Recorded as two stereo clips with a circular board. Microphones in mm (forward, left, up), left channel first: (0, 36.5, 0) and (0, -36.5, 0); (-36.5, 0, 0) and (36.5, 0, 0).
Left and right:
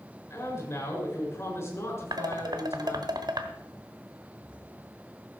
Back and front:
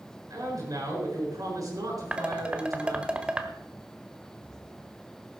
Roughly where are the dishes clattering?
Right.